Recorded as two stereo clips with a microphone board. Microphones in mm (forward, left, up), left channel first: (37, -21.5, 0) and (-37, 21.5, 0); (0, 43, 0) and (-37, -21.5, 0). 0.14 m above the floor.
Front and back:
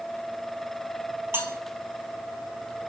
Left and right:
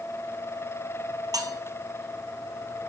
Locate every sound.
1.3 s cutlery clinking: 145° right, 1.9 m